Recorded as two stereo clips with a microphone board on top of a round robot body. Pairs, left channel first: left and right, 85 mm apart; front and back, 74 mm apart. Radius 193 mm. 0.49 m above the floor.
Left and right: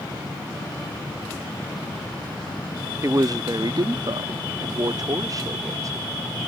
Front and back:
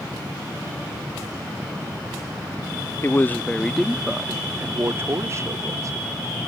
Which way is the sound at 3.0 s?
50° right.